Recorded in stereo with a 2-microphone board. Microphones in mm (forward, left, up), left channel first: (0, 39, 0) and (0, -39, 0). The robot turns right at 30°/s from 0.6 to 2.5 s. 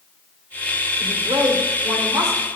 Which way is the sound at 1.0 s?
80° right.